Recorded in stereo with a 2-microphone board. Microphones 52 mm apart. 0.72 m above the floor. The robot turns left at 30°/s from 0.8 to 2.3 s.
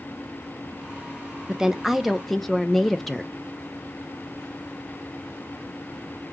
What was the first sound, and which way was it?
A woman speaking, 10° right (ahead or behind).